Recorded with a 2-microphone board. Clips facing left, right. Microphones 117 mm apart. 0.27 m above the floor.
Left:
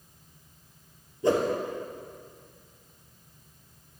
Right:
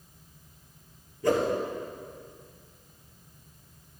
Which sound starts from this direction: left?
A whoosh, at 1.2 s.